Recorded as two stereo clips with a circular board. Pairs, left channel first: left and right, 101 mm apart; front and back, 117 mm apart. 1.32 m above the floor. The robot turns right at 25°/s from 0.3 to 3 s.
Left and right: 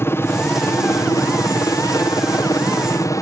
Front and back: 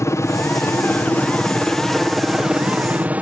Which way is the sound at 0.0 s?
45° left.